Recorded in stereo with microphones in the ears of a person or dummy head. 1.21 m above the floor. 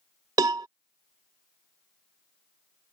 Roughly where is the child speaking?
No child speaking in this recording.